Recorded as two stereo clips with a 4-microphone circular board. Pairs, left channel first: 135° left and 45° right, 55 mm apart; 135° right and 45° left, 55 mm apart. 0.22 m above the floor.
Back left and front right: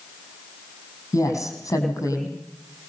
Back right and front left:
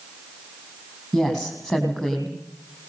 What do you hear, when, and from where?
1.1 s a woman speaking: 130° left, 9 m